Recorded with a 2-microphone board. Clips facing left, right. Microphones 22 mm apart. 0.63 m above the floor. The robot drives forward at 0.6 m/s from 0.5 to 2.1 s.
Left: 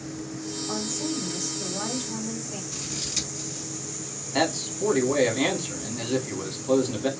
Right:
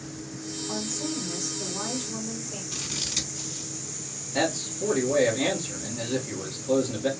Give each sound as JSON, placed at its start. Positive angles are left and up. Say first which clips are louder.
{"t": 0.7, "sound": "a woman speaking", "louder": "left 1 dB", "side_deg": 30, "distance_m": 1.4}
{"t": 2.7, "sound": "scissors", "louder": "right 1 dB", "side_deg": -30, "distance_m": 1.1}
{"t": 4.3, "sound": "a man speaking", "louder": "left 2 dB", "side_deg": 35, "distance_m": 1.2}